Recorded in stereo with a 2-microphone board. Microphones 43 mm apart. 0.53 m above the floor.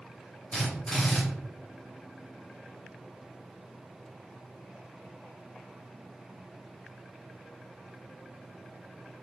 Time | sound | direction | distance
0.5 | a drill | 15° left (ahead or behind) | 1.5 m